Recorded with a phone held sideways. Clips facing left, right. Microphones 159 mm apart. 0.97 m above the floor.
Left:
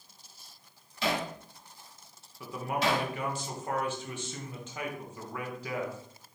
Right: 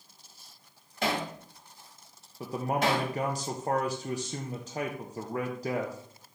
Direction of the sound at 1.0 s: 50° right (ahead or behind).